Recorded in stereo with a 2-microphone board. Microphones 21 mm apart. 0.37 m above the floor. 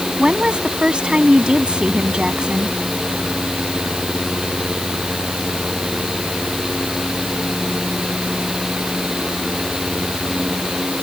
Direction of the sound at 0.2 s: 50° right (ahead or behind).